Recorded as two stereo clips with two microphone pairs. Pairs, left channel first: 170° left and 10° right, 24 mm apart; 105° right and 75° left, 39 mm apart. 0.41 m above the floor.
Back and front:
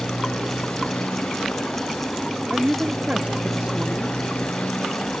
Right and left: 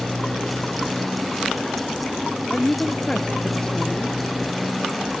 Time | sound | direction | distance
0.0 | a motorcycle | 175° left | ?
2.5 | a woman speaking | 35° right | ?